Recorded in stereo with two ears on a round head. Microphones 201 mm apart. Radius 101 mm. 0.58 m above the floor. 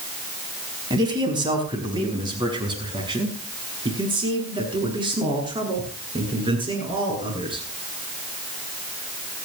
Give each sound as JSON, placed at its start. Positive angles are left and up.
{"t": 0.9, "sound": "a man speaking", "side_deg": -20, "distance_m": 5.0}